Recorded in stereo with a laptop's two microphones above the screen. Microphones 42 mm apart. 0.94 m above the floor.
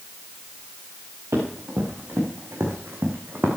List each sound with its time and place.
1.3 s running footsteps: 80° right, 5.5 m; by 3.5 s 55° right (ahead or behind), 4 m